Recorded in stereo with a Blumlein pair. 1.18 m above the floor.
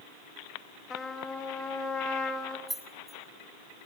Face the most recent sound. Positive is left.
turn(degrees=0)